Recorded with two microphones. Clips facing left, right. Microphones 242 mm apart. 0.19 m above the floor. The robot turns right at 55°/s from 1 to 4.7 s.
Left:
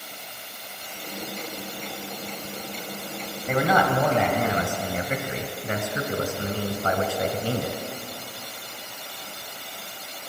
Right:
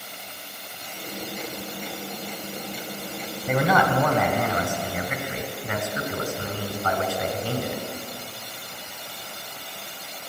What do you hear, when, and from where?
3.5 s a man speaking: 5° right, 1.3 m; by 7.8 s 65° left, 1.3 m